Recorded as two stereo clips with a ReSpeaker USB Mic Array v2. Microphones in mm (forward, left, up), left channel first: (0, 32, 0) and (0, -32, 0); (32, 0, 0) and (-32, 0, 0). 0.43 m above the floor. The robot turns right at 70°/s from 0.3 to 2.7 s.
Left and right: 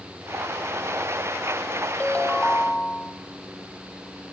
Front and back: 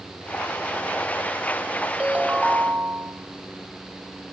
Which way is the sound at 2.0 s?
120° left.